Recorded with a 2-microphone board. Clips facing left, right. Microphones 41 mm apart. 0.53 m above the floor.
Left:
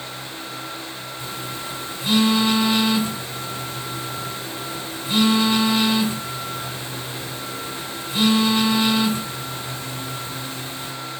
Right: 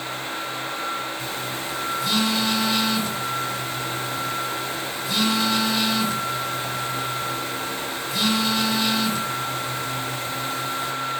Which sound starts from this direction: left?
A phone buzzing, at 1.2 s.